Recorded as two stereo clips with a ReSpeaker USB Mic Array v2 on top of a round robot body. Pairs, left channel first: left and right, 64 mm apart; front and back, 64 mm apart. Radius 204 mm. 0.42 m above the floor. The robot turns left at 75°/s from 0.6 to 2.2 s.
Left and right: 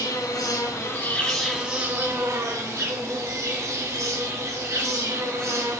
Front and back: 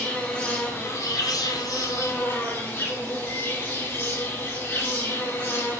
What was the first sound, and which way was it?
An insect, 60° left.